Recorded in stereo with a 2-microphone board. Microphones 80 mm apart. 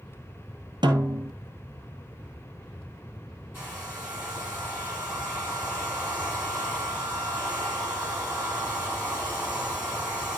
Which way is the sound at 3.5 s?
25° right (ahead or behind).